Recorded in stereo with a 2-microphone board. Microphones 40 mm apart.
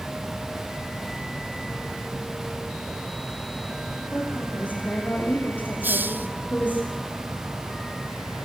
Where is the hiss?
60° right (ahead or behind), 0.6 m.